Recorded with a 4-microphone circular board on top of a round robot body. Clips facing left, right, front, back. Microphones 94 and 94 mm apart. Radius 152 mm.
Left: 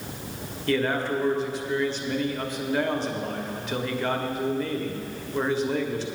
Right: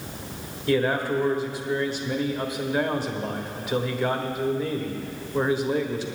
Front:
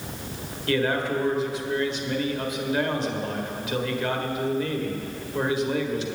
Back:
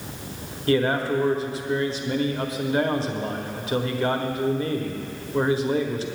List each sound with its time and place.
0.7 s a man speaking: 165° right, 1.6 m